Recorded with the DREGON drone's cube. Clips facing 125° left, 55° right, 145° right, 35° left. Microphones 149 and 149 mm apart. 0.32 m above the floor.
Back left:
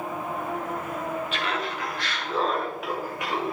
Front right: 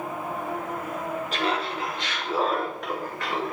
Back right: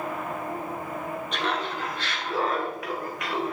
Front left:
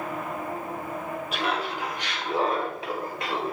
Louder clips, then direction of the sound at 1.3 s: Front right 2 dB, front left 1 dB; 45° right.